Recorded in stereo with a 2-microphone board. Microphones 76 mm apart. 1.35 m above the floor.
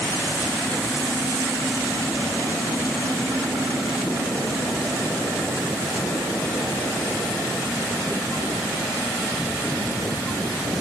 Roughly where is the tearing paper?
No tearing paper in this recording.